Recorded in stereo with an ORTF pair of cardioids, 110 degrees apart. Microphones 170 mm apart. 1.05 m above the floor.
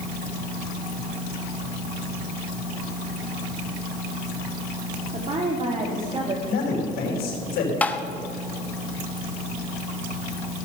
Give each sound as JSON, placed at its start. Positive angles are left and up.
{"t": 5.1, "sound": "a woman speaking", "azimuth_deg": -40, "distance_m": 2.5}
{"t": 6.5, "sound": "a man speaking", "azimuth_deg": 65, "distance_m": 5.5}
{"t": 7.8, "sound": "tapping", "azimuth_deg": 10, "distance_m": 0.9}